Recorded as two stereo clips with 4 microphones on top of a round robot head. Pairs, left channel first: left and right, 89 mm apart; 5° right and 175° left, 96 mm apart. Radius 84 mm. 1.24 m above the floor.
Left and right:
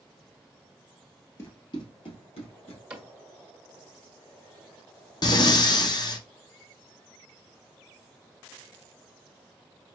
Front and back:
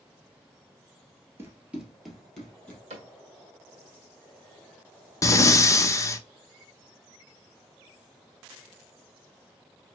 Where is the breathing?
50° left, 0.7 m.